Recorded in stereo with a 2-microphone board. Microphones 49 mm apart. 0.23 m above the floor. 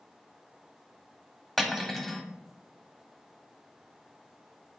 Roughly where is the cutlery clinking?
Centre.